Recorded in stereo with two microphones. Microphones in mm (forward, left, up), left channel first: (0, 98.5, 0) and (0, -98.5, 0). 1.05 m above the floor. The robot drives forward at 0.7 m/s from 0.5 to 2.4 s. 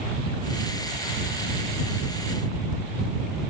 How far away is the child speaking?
No child speaking in this recording.